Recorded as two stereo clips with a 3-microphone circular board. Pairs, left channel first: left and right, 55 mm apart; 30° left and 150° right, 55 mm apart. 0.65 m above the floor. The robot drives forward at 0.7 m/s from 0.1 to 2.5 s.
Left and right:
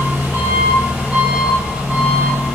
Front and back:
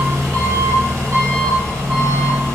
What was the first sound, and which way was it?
An engine running, 130° right.